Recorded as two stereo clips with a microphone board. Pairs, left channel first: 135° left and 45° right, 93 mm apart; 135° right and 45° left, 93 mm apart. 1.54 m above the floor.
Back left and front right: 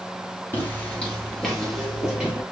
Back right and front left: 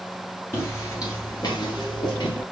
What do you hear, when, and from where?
0.5 s footsteps: 175° right, 1.7 m; by 2.4 s 125° right, 2.5 m